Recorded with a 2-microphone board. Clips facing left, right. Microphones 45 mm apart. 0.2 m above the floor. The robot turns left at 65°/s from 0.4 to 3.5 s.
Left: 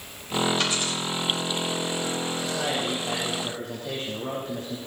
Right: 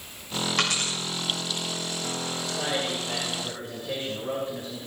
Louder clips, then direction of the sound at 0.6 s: Even; 75° right (ahead or behind).